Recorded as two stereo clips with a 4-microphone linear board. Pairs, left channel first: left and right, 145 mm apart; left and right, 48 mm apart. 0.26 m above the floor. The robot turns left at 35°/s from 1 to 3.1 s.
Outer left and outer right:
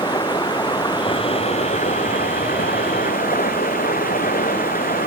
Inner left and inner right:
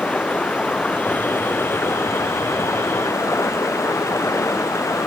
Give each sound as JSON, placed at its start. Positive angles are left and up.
{"t": 0.0, "sound": "running water", "azimuth_deg": 150}